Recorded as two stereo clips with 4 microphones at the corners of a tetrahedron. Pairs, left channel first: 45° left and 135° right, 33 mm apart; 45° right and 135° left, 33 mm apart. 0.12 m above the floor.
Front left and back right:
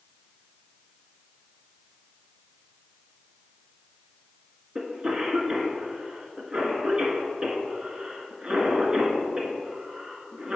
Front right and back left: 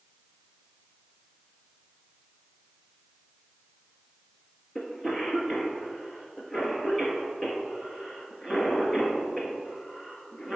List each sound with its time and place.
4.8 s a cough: 110° right, 1.7 m